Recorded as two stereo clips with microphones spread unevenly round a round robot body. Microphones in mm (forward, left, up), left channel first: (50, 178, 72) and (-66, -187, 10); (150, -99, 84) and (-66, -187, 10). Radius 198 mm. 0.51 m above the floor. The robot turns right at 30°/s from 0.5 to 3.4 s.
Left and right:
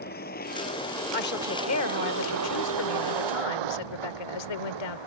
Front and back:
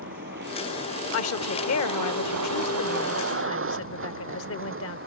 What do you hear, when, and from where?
0.0 s a vehicle: 140° left; by 5.1 s 125° right
1.1 s a woman speaking: straight ahead; by 5.0 s 70° left